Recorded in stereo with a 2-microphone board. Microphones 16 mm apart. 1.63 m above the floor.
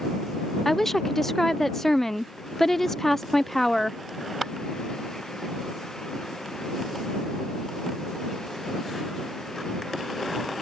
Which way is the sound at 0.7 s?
20° left (ahead or behind).